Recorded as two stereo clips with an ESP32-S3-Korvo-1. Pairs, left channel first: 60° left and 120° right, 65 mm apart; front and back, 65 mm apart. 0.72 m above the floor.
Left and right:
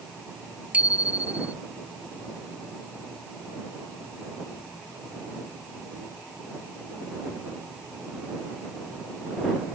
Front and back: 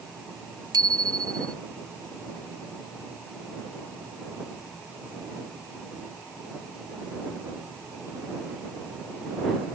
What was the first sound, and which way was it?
A bicycle bell, 170° left.